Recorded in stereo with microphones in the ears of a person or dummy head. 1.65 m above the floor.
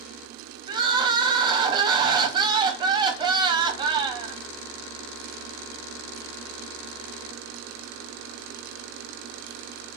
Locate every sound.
0.7 s crying: 25° right (ahead or behind), 0.5 m